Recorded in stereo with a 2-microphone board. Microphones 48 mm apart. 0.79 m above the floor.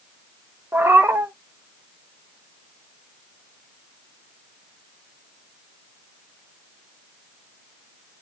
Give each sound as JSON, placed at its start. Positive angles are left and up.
{"t": 0.7, "sound": "a cat meowing", "side_deg": -60, "distance_m": 0.7}